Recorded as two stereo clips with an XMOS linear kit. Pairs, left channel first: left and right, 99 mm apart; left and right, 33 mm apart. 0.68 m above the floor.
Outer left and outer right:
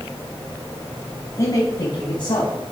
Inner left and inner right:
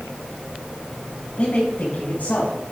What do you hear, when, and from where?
1.4 s a man speaking: 35° left (ahead or behind), 4 m; by 2.5 s 55° left (ahead or behind), 4.5 m